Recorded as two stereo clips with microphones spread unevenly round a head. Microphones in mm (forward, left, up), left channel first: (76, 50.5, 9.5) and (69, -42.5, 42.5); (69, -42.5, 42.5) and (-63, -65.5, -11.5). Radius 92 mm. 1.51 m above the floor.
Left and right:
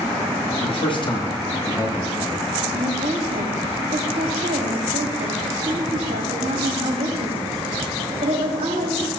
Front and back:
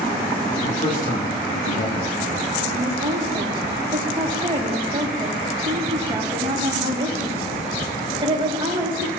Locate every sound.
0.6 s a man speaking: 60° left, 2 m; by 2.5 s straight ahead, 2 m
2.7 s a woman speaking: 115° right, 4 m